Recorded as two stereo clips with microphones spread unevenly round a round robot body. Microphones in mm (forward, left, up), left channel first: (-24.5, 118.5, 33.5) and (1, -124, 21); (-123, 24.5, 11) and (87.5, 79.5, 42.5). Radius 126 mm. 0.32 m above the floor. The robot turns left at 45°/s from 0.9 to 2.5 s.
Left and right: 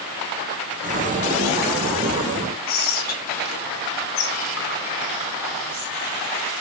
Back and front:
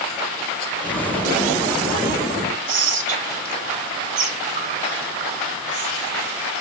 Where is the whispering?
70° left, 3 m.